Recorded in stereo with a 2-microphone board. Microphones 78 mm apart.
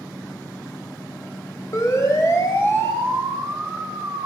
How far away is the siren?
About 5.5 m.